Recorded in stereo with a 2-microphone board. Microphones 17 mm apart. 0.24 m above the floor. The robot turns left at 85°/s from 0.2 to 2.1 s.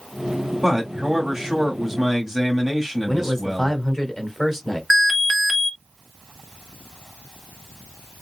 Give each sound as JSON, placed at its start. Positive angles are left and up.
{"t": 0.6, "sound": "a man speaking", "azimuth_deg": -40, "distance_m": 1.6}
{"t": 3.1, "sound": "a man speaking", "side_deg": 25, "distance_m": 1.6}
{"t": 4.9, "sound": "an alarm", "side_deg": 0, "distance_m": 1.0}